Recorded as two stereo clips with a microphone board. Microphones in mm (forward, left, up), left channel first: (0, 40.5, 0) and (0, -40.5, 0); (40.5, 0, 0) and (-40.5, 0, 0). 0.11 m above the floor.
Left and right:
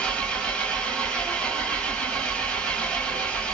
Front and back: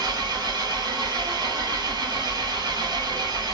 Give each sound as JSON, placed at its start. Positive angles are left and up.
{"t": 0.0, "sound": "an engine running", "azimuth_deg": 165, "distance_m": 1.9}